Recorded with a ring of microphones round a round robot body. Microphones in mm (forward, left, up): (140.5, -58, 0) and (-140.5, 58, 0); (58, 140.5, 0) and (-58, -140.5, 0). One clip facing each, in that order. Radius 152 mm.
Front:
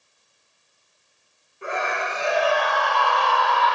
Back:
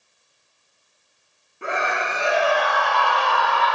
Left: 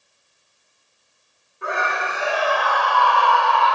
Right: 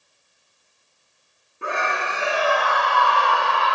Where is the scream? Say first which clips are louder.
Back 1 dB, left 1 dB; 175° right, 5.5 m; by 3.8 s 175° left, 4.5 m.